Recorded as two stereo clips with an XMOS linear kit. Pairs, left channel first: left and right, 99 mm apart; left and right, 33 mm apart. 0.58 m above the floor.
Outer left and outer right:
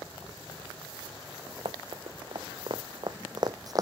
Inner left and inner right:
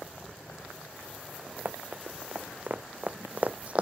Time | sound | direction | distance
1.6 | running footsteps | 60° right (ahead or behind) | ?